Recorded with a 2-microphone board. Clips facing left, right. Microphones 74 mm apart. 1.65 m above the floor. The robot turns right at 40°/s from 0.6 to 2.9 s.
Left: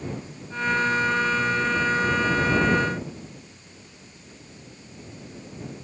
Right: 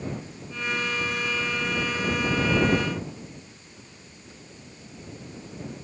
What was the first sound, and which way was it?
Only background noise.